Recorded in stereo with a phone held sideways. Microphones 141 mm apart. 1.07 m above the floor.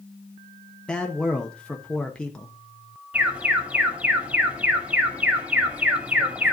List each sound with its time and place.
0.9 s a man speaking: 5° left (ahead or behind), 1.1 m
3.1 s an alarm: 10° right (ahead or behind), 2 m